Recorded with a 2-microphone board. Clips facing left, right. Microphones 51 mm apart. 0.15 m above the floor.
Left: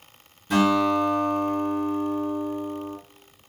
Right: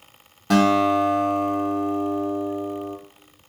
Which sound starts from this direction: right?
A guitar, at 0.5 s.